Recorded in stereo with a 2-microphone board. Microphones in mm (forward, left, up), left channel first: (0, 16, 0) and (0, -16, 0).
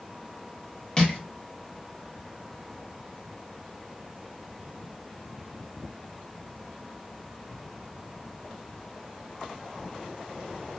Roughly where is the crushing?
Left.